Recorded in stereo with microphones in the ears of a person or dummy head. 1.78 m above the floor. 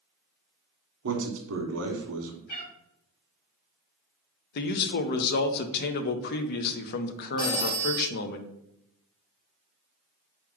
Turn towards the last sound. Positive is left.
turn(degrees=10)  # may be behind; listen again after turning